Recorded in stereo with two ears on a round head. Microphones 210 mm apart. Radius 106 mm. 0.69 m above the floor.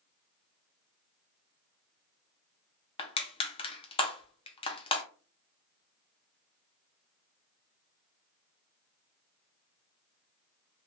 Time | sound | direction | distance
3.0 | crushing | 25° left (ahead or behind) | 0.6 m